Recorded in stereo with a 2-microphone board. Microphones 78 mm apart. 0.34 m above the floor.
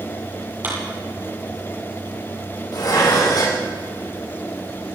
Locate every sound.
0.6 s a clap: 25° right (ahead or behind), 9.5 m
2.7 s dishes clattering: 55° left (ahead or behind), 8.5 m